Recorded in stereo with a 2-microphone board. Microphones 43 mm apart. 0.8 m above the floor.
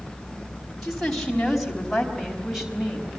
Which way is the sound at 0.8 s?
Centre (ahead or behind).